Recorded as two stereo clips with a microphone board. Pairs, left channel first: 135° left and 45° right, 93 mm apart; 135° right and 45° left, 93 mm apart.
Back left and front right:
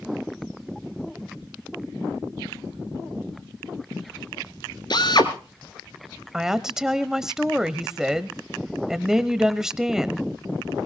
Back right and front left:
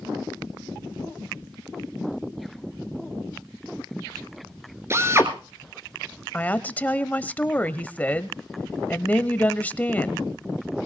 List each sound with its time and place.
4.9 s a drill: 105° left, 1.8 m
6.3 s a woman speaking: 115° right, 1.0 m